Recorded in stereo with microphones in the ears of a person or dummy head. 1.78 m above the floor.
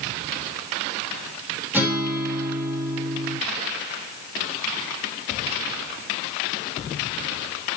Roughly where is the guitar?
Centre.